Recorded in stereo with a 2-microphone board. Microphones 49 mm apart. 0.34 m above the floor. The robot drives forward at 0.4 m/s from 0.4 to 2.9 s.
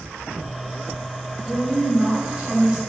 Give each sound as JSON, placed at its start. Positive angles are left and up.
{"t": 1.5, "sound": "a woman speaking", "side_deg": -20, "distance_m": 1.5}